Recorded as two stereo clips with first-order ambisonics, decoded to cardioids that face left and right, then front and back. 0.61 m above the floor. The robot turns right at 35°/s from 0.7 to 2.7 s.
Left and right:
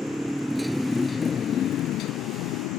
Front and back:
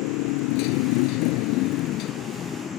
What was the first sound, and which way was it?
A motorcycle, straight ahead.